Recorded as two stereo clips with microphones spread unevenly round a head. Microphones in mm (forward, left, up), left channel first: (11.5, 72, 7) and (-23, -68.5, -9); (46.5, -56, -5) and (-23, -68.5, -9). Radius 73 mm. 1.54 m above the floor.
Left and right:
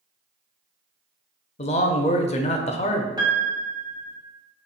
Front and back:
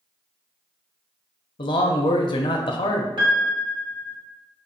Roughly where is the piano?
Behind.